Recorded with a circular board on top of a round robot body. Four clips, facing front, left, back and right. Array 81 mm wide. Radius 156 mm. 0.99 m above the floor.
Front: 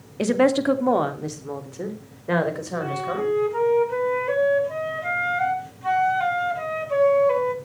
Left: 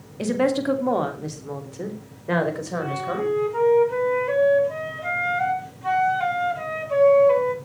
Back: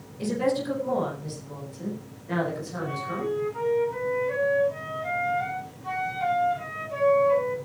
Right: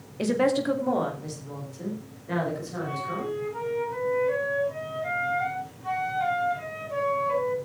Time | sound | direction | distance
0.2 | a woman speaking | 5° right | 2 m
2.8 | a flute | 35° left | 4 m